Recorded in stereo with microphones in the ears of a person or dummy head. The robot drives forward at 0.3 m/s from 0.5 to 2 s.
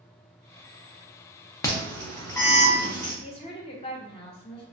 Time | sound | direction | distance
1.6 | an alarm | 15° left (ahead or behind) | 0.5 m
3.2 | a woman speaking | 25° left (ahead or behind) | 0.6 m